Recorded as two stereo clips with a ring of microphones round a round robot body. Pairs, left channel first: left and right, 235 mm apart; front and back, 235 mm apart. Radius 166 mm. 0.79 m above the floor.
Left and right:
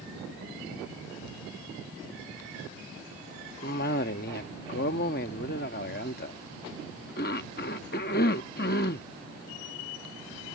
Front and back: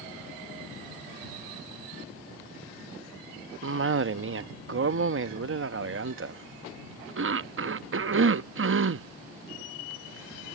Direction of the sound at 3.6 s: 150° left.